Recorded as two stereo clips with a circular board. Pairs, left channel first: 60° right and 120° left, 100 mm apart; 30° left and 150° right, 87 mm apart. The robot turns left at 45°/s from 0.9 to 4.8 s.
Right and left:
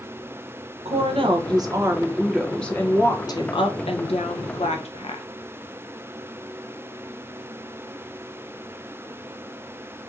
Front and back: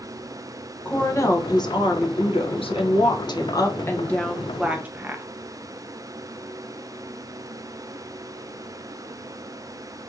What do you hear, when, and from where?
0.8 s a woman speaking: 100° left, 0.5 m; by 5.2 s 75° right, 0.5 m